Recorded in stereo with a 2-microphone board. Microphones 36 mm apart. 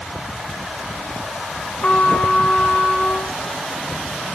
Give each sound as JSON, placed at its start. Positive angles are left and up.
{"t": 1.8, "sound": "a trumpet", "side_deg": 40, "distance_m": 1.0}